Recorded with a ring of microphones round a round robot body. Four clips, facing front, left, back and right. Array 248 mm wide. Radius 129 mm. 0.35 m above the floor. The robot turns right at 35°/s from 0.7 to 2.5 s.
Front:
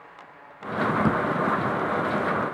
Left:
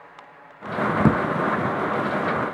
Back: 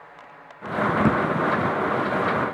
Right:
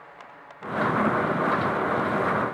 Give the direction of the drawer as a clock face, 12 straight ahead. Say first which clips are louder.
Left 6 dB, back 4 dB; 9 o'clock.